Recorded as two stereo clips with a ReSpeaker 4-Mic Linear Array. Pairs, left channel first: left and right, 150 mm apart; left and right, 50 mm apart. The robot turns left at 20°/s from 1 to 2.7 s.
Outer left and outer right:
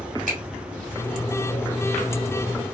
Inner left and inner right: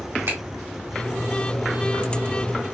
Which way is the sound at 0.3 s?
65° right (ahead or behind).